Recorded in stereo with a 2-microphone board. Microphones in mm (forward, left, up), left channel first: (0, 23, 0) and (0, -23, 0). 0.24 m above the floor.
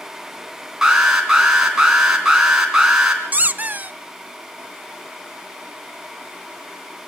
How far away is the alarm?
About 4 m.